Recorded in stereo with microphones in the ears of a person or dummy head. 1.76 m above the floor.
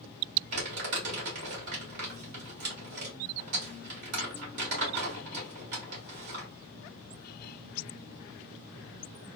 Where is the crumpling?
45° right (ahead or behind), 1.4 m.